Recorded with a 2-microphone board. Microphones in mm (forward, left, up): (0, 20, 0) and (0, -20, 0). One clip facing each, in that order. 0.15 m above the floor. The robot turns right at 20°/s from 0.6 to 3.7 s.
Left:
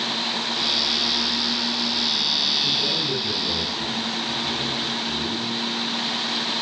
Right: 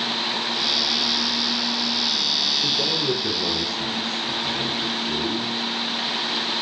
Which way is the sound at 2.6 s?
65° right (ahead or behind).